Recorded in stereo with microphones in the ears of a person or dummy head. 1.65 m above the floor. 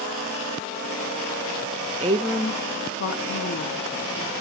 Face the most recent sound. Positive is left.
turn(degrees=80)